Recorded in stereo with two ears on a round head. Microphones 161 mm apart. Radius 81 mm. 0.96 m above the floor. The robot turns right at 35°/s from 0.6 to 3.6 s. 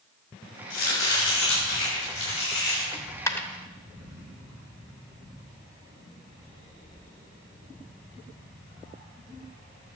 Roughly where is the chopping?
Ahead left.